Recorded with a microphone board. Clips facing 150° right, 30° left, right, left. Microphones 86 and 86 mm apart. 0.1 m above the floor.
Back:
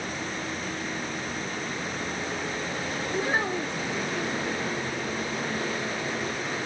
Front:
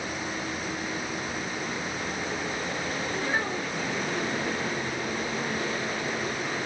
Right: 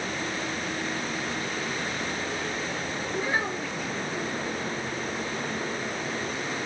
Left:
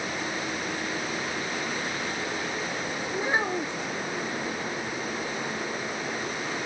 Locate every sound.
3.1 s a child speaking: 150° left, 1.0 m